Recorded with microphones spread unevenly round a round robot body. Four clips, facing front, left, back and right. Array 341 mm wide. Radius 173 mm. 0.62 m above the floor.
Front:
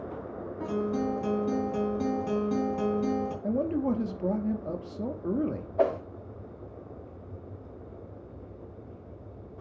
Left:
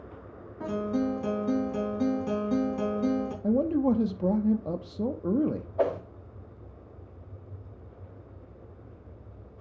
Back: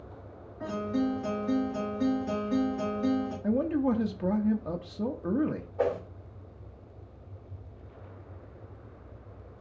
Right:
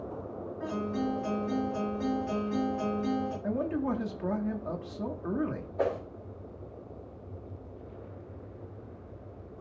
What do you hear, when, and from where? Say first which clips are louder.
0.6 s a guitar: left 4 dB, even; 45° left, 4.5 m
3.4 s a man speaking: left 9 dB, back 2 dB; 85° left, 0.8 m
5.8 s a whoosh: left 3 dB, front 3 dB; 10° left, 1.5 m